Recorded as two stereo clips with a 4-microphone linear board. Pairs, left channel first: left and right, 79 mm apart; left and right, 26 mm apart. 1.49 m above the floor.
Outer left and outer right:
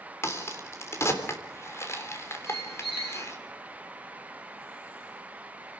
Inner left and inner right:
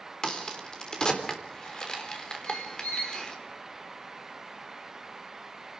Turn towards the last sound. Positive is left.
turn(degrees=80)